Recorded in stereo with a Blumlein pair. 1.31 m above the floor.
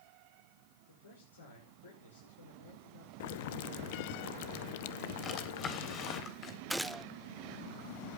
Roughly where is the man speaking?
Left.